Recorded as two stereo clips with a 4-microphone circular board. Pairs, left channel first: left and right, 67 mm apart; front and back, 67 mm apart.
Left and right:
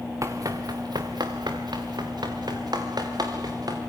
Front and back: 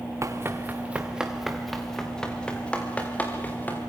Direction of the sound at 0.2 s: 130° right.